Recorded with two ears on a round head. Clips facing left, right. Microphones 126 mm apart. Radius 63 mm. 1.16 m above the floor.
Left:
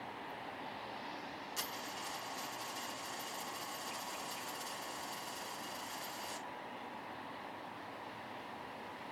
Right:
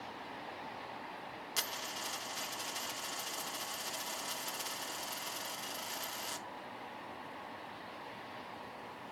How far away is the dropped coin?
About 1.4 m.